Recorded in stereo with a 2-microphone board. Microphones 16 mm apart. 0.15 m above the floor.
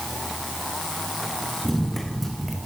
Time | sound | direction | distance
1.6 | running footsteps | 15° left (ahead or behind) | 5.5 m